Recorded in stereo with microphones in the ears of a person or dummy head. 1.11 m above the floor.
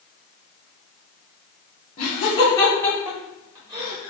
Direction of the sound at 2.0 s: 40° left (ahead or behind).